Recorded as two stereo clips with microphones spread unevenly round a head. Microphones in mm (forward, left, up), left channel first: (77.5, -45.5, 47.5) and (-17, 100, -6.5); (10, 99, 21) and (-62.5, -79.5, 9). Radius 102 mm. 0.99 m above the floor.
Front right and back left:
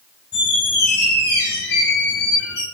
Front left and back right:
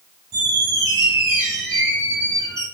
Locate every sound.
0.3 s a squeak: 35° right, 3 m